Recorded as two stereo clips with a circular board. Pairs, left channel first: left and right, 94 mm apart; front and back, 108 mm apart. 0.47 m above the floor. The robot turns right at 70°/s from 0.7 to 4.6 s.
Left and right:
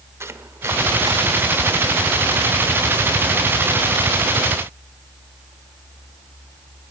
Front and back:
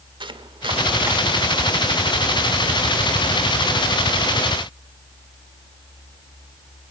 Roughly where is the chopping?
Behind right.